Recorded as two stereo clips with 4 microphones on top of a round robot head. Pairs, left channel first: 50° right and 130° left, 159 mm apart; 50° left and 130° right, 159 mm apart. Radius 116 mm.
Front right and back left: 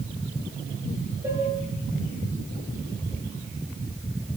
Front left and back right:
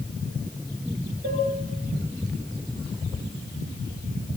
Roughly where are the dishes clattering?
Behind right.